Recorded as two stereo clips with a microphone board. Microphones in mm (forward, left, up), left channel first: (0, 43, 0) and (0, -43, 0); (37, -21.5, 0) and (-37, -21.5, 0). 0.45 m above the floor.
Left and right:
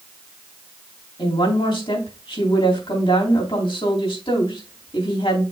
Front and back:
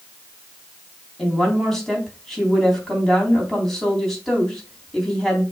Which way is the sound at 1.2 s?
85° left.